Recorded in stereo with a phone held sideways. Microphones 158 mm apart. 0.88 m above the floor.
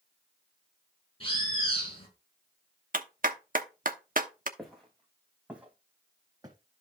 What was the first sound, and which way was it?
A bird, 35° left (ahead or behind).